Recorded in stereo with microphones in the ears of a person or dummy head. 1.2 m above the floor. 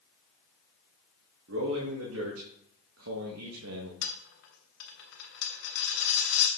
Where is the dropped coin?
65° left (ahead or behind), 1.7 m.